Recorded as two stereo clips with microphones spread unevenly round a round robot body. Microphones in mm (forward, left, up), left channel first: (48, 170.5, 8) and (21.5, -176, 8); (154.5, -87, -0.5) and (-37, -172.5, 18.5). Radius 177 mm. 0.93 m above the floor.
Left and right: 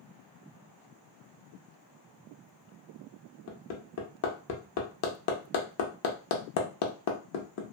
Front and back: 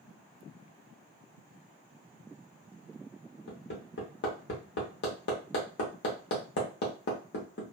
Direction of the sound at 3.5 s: 55° left.